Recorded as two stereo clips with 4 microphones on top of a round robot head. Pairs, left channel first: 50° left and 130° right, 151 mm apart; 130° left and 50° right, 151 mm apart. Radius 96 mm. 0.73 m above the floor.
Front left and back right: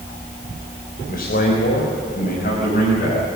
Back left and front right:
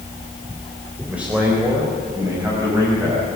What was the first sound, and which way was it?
A man speaking, 30° left.